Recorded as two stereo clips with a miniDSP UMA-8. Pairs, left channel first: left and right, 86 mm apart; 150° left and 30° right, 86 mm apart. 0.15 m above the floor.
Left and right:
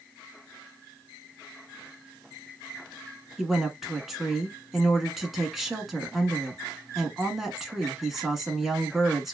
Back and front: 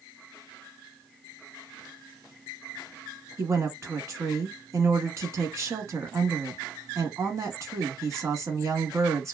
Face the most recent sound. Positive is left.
turn(degrees=-5)